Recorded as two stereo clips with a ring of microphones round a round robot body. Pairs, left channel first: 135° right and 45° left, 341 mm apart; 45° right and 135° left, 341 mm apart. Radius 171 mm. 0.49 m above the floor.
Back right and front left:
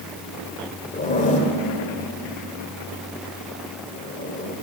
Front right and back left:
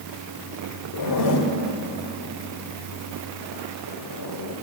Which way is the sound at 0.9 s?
70° right.